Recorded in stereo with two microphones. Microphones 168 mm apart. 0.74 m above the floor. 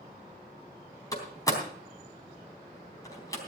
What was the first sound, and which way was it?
A door slam, 20° left (ahead or behind).